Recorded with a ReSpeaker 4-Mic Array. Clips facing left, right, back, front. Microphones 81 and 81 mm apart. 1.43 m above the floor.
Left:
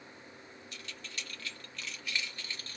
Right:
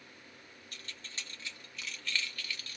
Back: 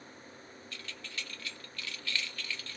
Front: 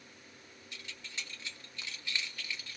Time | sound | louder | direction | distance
0.7 | keys jangling | left 1 dB, back 1 dB | 65° right | 0.9 m